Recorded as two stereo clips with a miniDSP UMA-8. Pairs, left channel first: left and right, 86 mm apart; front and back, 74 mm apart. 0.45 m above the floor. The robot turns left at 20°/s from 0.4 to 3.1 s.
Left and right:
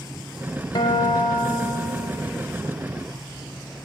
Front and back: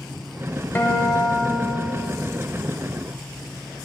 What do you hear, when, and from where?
0.8 s a guitar: 65° left, 0.7 m; by 2.1 s 35° left, 0.7 m